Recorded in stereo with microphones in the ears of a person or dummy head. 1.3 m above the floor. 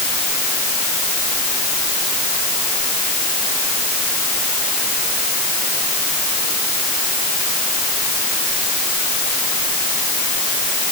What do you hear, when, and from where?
Only background noise.